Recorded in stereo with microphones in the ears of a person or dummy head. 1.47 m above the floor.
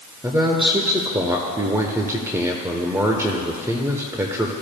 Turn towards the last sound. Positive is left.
turn(degrees=-15)  # may be behind; listen again after turning